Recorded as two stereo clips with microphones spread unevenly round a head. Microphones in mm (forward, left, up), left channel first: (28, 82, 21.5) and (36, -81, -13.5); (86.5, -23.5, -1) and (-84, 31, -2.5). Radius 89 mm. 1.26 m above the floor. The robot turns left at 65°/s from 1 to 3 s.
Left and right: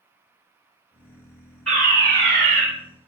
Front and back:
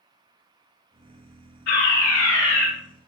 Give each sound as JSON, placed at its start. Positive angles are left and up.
{"t": 1.7, "sound": "a fire alarm", "azimuth_deg": 0, "distance_m": 6.0}